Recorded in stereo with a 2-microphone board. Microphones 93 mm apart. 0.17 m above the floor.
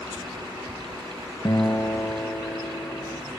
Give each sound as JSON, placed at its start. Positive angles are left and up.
{"t": 1.4, "sound": "a guitar", "side_deg": 35, "distance_m": 3.0}